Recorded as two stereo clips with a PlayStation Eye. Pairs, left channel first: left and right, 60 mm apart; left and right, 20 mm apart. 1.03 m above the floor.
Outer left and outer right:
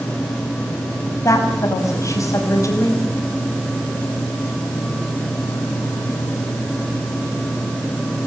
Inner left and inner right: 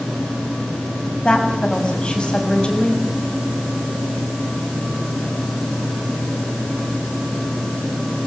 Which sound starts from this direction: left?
A woman speaking, at 1.2 s.